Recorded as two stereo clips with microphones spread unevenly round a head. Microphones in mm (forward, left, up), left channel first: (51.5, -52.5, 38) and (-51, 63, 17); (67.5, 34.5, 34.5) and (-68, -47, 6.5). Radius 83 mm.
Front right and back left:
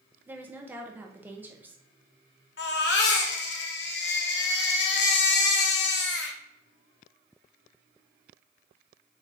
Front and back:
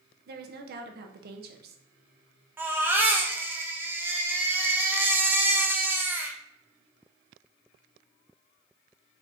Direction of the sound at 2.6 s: 70° right.